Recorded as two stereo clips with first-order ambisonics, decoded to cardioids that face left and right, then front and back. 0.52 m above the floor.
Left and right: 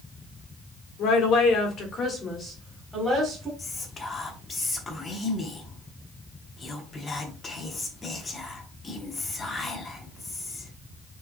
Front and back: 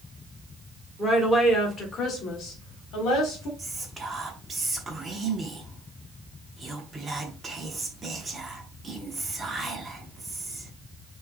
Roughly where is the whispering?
Behind left.